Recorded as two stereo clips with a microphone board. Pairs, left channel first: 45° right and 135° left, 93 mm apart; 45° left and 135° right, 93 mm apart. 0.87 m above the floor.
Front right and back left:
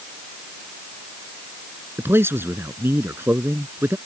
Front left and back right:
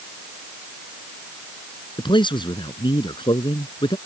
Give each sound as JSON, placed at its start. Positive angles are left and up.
{"t": 2.0, "sound": "a man speaking", "azimuth_deg": 70}